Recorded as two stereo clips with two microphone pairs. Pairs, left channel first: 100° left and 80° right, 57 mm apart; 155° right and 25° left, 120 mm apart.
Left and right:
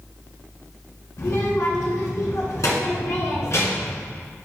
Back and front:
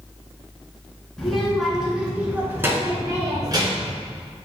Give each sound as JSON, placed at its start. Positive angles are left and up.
{"t": 1.2, "sound": "a child speaking", "azimuth_deg": 120, "distance_m": 2.5}